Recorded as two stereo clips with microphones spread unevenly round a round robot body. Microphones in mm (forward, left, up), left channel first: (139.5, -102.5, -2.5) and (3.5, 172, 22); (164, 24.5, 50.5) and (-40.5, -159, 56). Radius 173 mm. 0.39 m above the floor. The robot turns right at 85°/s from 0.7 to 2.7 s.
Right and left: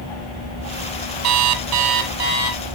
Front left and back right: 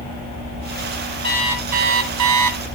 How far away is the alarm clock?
About 2.0 m.